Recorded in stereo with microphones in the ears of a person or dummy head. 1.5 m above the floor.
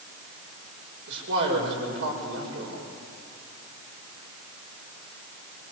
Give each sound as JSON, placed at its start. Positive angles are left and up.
{"t": 1.1, "sound": "a man speaking", "side_deg": -70, "distance_m": 7.0}